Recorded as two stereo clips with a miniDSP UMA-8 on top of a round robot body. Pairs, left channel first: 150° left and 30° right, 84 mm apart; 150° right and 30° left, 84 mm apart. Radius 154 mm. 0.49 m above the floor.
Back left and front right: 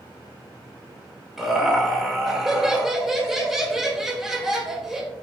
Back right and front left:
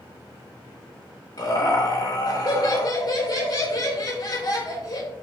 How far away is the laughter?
About 3.5 m.